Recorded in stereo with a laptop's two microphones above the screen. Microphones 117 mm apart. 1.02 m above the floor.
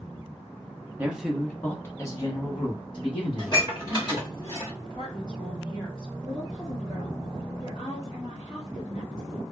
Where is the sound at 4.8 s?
40° left (ahead or behind), 1.0 m.